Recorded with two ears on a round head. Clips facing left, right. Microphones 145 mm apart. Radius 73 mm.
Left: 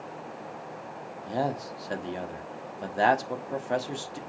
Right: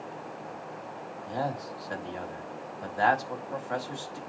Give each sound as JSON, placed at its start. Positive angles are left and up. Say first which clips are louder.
{"t": 1.3, "sound": "a man speaking", "louder": "left 3 dB", "side_deg": 30, "distance_m": 1.2}